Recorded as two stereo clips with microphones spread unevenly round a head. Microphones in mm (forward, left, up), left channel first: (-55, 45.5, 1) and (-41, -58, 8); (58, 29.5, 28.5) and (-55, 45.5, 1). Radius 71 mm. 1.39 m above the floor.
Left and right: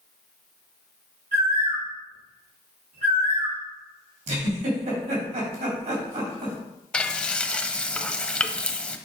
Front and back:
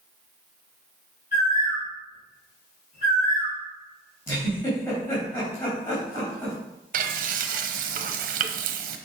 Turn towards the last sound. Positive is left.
turn(degrees=180)